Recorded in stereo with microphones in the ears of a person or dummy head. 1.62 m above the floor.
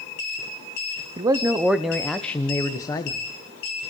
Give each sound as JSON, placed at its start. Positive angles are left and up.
{"t": 1.2, "sound": "a man speaking", "side_deg": -20, "distance_m": 0.9}